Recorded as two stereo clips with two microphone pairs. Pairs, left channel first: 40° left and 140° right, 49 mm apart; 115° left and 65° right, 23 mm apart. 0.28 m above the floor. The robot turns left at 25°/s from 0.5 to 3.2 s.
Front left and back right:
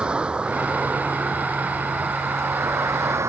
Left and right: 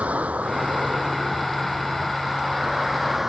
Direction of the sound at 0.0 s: 75° right.